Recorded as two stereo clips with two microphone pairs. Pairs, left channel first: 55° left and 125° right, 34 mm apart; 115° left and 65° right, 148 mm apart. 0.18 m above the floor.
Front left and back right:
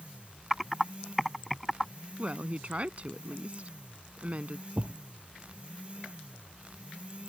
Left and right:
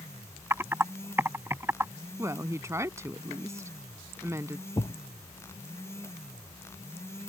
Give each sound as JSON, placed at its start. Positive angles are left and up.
{"t": 0.5, "sound": "typing on a keyboard", "azimuth_deg": -40}
{"t": 2.2, "sound": "a woman speaking", "azimuth_deg": -125}
{"t": 4.8, "sound": "a thud", "azimuth_deg": 175}